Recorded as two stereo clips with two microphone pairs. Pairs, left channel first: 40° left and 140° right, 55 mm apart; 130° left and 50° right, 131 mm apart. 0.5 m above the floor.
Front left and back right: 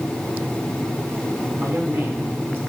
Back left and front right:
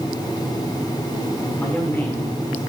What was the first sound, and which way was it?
A man speaking, 165° right.